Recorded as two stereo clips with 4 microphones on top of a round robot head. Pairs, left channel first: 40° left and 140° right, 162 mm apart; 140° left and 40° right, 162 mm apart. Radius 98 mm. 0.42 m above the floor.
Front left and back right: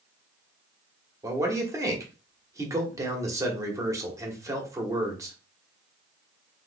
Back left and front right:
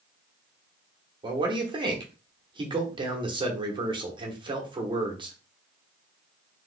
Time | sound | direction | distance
1.2 | a man speaking | 80° right | 1.1 m